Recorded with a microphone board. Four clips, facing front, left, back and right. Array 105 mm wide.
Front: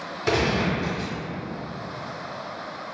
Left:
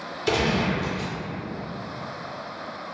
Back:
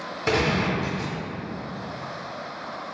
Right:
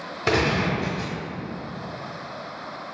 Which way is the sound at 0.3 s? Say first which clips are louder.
Right 1 dB, even; 95° right.